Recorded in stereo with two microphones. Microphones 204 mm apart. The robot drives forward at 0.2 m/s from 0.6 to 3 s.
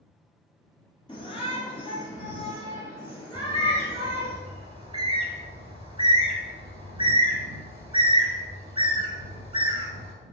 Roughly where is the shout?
Left.